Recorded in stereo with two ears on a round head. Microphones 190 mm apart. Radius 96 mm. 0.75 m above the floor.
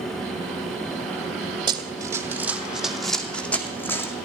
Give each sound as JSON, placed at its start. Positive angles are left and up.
{"t": 1.7, "sound": "running footsteps", "side_deg": -20, "distance_m": 1.6}